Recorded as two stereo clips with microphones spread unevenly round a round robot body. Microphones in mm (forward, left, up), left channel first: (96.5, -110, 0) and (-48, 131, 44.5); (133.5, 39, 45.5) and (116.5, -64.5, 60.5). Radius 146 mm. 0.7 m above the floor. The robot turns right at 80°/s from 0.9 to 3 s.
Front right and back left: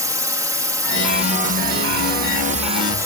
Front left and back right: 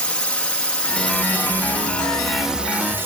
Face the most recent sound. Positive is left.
turn(degrees=-155)